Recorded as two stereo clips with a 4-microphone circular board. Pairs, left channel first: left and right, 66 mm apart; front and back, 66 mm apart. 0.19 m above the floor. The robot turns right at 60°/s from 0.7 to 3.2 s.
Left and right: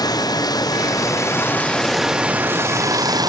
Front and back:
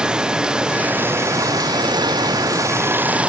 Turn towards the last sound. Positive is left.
turn(degrees=-110)